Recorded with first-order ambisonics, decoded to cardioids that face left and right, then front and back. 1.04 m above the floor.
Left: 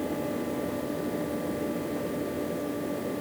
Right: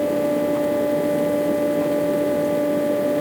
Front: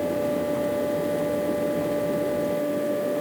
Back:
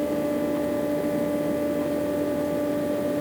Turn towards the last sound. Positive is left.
No sound to turn to.